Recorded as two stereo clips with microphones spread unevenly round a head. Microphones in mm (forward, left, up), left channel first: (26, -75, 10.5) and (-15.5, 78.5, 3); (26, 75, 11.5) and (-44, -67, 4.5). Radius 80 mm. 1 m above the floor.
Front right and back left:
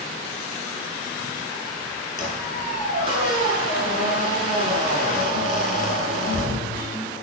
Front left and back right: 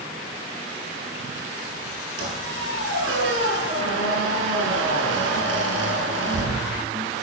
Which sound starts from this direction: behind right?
A squeak, at 2.2 s.